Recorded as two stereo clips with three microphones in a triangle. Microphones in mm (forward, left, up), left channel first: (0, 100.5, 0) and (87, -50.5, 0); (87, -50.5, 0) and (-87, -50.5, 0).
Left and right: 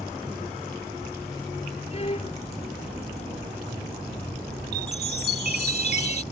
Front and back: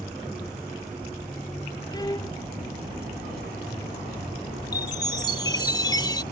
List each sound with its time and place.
1.9 s a violin: 65° left
4.7 s a chime: 65° right